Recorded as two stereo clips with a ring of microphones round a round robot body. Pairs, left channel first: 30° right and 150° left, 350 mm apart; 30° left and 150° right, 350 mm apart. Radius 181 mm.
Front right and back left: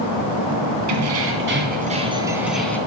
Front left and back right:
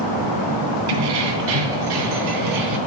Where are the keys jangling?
165° right, 2.5 m; by 2.8 s 115° right, 2.5 m.